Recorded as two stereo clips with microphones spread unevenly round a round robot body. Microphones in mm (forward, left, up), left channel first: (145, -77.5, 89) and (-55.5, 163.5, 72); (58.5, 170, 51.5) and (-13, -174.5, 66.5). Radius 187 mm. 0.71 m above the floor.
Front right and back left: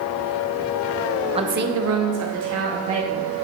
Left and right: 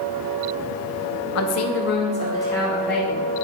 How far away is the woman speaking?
About 0.8 m.